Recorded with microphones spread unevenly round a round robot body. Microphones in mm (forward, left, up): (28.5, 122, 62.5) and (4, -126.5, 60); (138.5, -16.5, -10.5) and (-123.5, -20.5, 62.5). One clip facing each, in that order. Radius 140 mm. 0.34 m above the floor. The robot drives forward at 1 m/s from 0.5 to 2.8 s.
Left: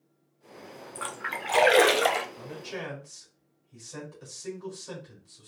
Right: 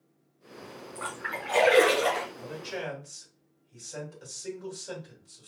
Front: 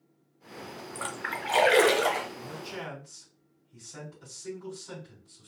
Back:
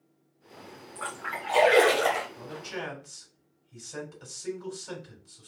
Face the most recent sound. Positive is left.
turn(degrees=175)